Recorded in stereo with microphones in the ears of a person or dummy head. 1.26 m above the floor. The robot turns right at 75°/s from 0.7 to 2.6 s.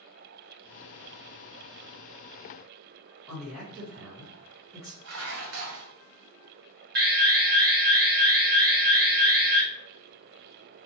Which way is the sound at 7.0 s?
50° right (ahead or behind).